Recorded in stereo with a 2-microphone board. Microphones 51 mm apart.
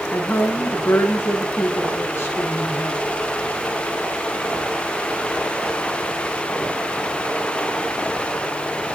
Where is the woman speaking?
50° left (ahead or behind), 2.5 m.